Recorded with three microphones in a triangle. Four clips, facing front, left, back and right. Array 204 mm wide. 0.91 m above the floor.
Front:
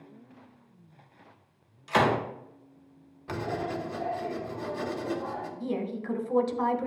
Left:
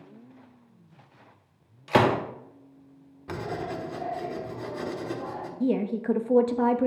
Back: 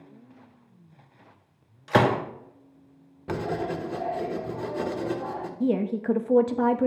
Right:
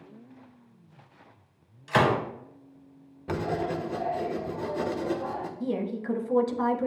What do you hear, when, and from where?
1.9 s a gunshot: 135° left, 1.4 m
3.3 s writing: 150° right, 1.2 m
5.6 s a woman speaking: 145° left, 0.8 m